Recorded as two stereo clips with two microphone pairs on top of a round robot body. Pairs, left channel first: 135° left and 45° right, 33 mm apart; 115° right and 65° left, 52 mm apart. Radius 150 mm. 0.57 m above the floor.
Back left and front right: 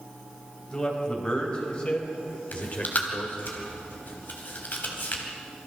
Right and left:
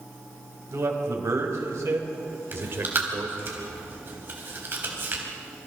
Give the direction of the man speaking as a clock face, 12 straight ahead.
10 o'clock.